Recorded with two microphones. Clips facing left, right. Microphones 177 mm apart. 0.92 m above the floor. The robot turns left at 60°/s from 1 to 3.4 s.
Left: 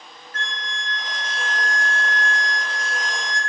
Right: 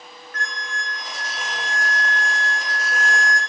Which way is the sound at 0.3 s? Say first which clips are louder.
Right 1 dB; 35° left.